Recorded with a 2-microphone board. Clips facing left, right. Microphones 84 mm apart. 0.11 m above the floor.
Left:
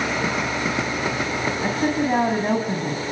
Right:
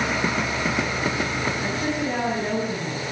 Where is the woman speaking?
30° left (ahead or behind), 7 m.